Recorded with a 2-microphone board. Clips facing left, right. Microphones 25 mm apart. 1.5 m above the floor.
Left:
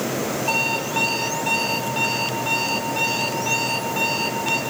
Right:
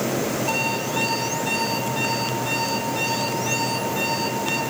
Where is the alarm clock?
20° left (ahead or behind), 7 m.